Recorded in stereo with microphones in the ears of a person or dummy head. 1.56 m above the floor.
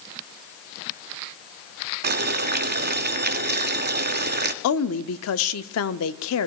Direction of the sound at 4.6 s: 75° left (ahead or behind).